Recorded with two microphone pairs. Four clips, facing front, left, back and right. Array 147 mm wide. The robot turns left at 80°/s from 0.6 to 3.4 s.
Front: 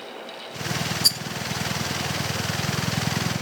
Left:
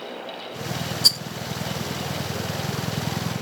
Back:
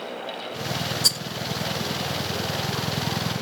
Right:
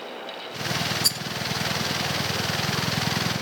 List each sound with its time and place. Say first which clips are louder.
1.0 s a rattle: left 1 dB, back 1 dB; 140° left; by 1.2 s 130° left